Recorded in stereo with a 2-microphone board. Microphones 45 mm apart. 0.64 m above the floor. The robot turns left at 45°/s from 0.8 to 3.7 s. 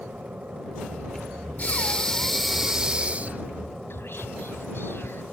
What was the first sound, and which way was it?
An aircraft, 40° right.